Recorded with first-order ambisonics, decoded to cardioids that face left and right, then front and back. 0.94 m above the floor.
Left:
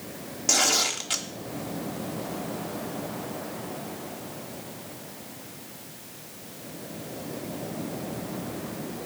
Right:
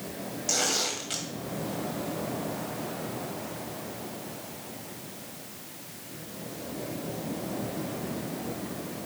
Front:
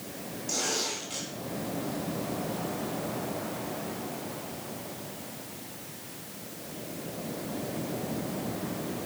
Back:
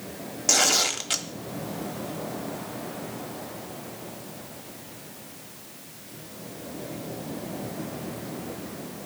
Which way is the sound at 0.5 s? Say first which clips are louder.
Left 5 dB, back 9 dB; 160° left.